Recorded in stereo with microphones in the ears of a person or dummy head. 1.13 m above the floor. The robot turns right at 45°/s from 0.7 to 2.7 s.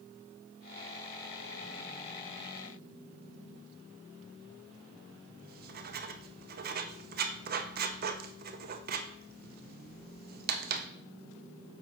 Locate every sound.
5.4 s writing: 50° right (ahead or behind), 0.5 m